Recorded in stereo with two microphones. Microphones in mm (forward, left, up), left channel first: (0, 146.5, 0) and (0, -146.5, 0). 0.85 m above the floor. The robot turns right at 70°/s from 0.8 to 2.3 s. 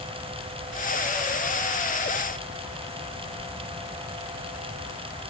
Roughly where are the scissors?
No scissors in this recording.